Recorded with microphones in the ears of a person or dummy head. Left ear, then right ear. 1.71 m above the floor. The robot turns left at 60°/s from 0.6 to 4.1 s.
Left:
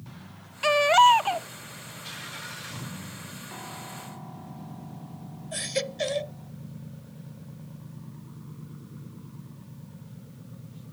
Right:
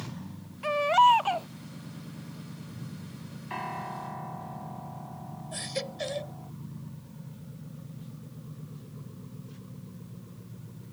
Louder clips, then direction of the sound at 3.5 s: Right 8 dB; 60° right.